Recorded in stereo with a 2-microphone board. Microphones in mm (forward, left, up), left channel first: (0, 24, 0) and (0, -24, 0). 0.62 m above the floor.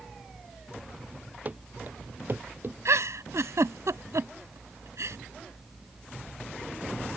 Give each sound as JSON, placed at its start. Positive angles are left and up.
{"t": 1.4, "sound": "running footsteps", "side_deg": -35}
{"t": 2.9, "sound": "a giggle", "side_deg": -85}